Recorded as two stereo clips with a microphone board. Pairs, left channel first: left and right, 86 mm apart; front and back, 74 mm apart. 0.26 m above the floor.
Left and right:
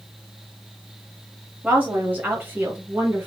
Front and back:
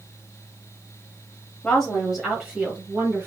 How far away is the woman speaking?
About 1.2 m.